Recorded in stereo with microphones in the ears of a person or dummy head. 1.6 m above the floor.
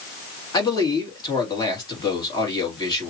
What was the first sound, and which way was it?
A man speaking, 20° left (ahead or behind).